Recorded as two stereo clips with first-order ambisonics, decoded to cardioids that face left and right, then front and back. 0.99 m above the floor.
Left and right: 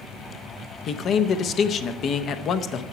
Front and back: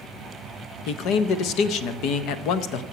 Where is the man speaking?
35° left, 0.7 m.